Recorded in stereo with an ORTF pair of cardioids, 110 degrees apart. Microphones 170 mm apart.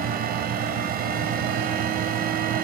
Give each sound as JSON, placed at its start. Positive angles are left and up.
{"t": 0.0, "sound": "a fan", "azimuth_deg": -60, "distance_m": 0.8}